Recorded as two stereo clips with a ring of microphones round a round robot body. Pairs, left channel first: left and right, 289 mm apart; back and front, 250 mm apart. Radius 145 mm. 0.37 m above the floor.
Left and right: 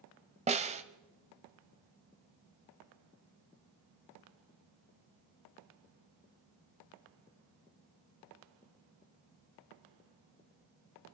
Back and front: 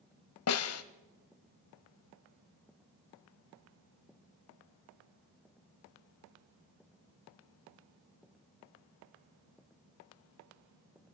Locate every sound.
0.5 s a snare drum: 155° right, 1.2 m